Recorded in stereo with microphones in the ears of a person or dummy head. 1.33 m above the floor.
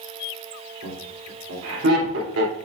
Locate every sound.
0.8 s laughter: 75° right (ahead or behind), 3.5 m